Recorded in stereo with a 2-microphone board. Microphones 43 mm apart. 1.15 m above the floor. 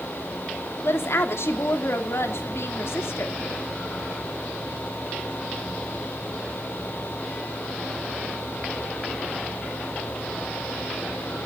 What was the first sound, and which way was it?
A woman speaking, 85° left.